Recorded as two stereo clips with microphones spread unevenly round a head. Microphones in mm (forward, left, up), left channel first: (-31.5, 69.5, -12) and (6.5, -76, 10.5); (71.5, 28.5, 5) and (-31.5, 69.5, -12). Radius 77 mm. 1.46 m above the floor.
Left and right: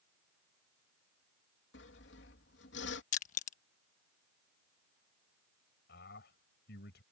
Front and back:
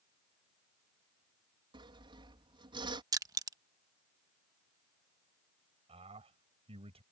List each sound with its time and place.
1.7 s sawing: 110° left
3.1 s crushing: 110° left
5.9 s a man speaking: 125° left